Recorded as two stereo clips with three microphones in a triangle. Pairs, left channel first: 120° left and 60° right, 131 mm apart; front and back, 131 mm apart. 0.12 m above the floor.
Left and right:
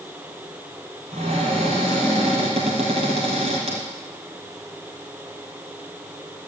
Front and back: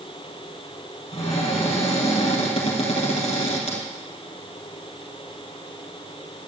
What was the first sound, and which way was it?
A cupboard door, 30° right.